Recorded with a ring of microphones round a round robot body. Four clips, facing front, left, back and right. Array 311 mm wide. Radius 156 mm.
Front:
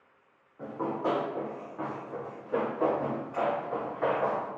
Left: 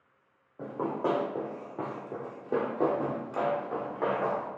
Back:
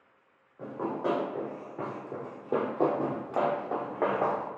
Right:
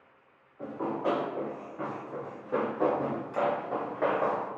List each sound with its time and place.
0.6 s running footsteps: 95° left, 1.7 m; by 4.5 s 160° right, 1.5 m